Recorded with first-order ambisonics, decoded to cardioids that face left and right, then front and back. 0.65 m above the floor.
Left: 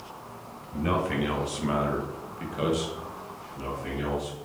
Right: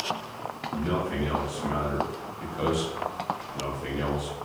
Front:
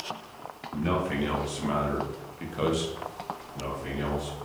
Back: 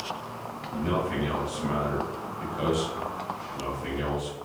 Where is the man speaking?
65° left, 1.2 m; by 4.3 s 105° right, 0.9 m.